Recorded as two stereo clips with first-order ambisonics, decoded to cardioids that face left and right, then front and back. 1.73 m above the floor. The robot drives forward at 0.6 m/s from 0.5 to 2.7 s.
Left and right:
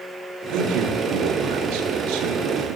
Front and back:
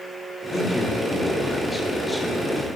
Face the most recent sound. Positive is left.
turn(degrees=-90)